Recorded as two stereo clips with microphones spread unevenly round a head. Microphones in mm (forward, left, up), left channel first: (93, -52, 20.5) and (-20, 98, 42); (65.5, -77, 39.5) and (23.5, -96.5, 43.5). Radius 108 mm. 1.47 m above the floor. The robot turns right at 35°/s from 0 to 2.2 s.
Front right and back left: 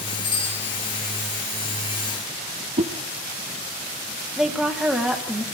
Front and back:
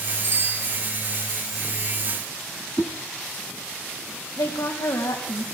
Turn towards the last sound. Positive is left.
turn(degrees=40)